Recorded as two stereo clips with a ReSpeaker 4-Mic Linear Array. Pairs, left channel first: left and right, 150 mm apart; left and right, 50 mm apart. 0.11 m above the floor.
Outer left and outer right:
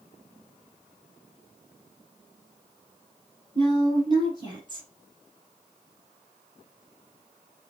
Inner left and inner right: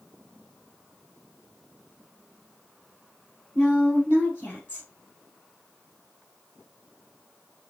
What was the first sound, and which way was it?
A woman speaking, 30° left (ahead or behind).